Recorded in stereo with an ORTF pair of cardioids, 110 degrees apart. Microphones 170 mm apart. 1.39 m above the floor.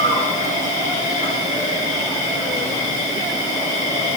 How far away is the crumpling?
I don't hear crumpling.